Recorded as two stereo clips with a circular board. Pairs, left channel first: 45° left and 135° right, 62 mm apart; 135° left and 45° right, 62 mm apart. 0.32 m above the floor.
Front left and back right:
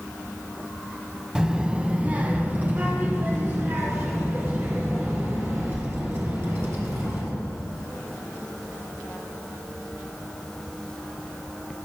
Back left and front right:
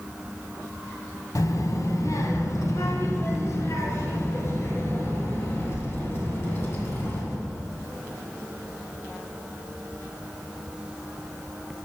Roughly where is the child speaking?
Behind left.